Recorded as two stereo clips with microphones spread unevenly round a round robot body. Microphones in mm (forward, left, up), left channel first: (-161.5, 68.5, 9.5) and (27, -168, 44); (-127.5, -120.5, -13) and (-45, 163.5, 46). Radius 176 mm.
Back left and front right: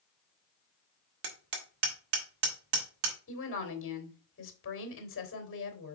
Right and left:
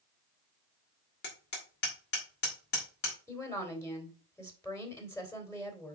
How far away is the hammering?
About 1.9 m.